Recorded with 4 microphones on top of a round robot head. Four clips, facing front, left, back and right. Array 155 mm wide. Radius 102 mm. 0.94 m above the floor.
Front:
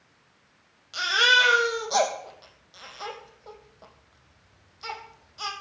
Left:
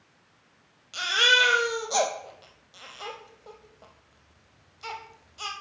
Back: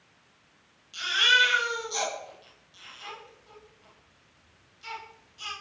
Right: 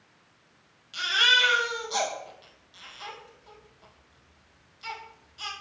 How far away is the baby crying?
About 3 m.